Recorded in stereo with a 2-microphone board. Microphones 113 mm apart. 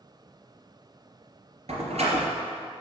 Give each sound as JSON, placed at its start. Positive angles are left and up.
{"t": 1.7, "sound": "a door slam", "side_deg": -70, "distance_m": 3.0}